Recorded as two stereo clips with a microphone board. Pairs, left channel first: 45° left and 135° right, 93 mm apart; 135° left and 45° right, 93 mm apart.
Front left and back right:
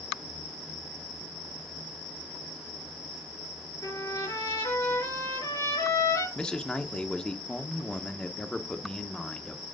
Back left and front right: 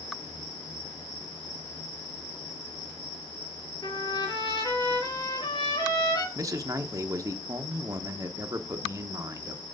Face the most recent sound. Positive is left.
turn(degrees=-30)